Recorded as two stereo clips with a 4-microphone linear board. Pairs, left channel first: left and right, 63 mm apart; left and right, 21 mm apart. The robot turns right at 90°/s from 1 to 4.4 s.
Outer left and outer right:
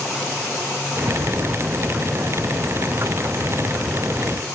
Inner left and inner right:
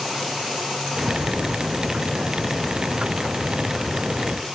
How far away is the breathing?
No breathing in this recording.